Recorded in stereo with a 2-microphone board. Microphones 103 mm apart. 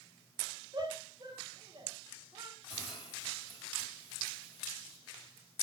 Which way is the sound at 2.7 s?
65° left (ahead or behind).